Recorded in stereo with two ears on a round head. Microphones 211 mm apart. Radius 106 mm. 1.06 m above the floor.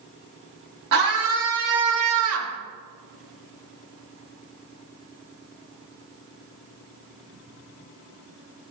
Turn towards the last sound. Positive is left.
turn(degrees=-60)  # may be behind; listen again after turning